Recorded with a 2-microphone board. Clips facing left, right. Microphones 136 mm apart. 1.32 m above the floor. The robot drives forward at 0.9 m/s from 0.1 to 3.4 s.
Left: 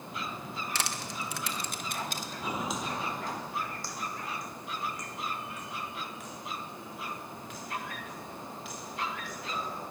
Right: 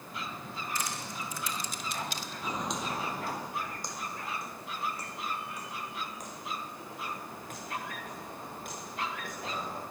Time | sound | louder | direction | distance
0.8 | crushing | left 1 dB | 75° left (ahead or behind) | 1.3 m
2.4 | footsteps | even | 10° left (ahead or behind) | 1.4 m